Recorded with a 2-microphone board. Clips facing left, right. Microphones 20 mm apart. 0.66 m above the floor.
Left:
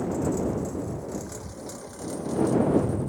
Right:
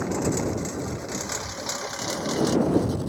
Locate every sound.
0.0 s a lawn mower: 55° right (ahead or behind); by 3.1 s 65° right (ahead or behind)